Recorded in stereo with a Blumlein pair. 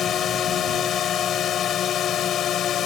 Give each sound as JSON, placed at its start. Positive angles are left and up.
{"t": 0.0, "sound": "a drone", "azimuth_deg": 25}